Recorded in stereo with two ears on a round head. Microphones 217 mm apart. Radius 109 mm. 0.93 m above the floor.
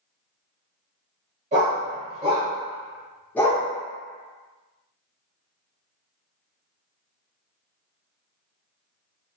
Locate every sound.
1.5 s a dog barking: 30° right (ahead or behind), 1.2 m; by 3.7 s 20° left (ahead or behind), 0.5 m